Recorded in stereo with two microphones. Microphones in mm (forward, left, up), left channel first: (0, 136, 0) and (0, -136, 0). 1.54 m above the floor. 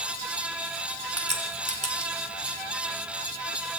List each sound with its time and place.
1.2 s a crack: 65° right (ahead or behind), 1.9 m